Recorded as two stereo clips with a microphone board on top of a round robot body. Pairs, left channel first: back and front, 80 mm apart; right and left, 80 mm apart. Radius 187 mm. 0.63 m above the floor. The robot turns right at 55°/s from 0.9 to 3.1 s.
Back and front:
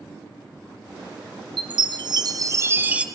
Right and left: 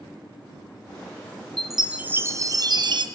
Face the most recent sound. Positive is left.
turn(degrees=80)